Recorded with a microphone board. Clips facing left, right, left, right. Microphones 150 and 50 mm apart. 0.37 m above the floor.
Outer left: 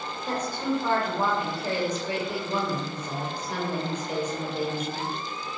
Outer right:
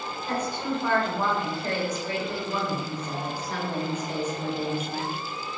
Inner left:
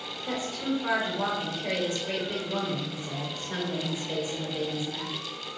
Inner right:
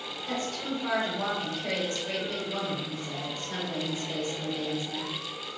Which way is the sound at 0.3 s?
15° left (ahead or behind).